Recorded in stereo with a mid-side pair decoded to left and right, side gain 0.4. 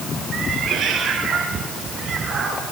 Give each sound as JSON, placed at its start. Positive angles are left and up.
{"t": 0.3, "sound": "a cat meowing", "azimuth_deg": -65, "distance_m": 7.5}